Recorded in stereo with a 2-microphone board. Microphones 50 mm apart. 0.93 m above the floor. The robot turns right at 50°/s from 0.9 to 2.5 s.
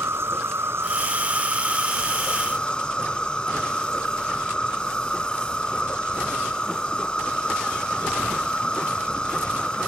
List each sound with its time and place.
0.0 s an insect: 60° right; by 9.9 s 20° left